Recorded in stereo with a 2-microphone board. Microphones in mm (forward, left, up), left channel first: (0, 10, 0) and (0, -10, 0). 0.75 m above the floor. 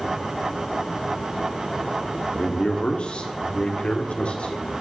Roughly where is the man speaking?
Left.